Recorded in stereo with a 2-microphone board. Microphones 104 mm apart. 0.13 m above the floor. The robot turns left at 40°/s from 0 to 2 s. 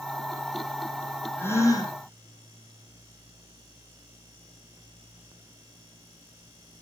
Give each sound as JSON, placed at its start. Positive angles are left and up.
{"t": 1.4, "sound": "a gasp", "side_deg": 15, "distance_m": 4.0}